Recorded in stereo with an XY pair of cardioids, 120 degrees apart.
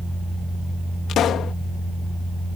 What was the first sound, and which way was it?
A pop, 60° left.